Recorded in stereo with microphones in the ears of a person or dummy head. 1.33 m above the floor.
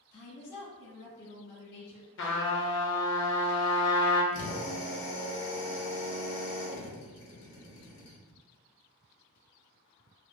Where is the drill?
45° left (ahead or behind), 1.1 m.